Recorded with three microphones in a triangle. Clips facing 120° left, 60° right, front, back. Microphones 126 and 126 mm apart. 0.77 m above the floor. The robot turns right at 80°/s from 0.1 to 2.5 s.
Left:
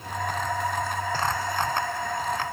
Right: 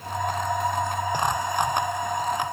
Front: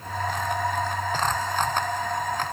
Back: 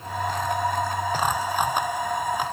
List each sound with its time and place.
Only background noise.